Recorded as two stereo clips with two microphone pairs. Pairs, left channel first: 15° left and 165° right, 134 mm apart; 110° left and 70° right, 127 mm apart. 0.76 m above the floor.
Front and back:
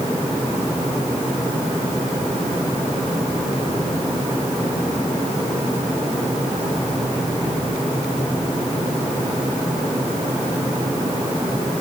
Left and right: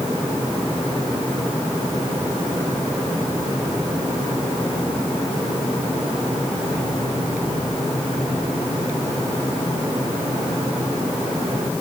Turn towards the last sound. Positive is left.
No sound to turn to.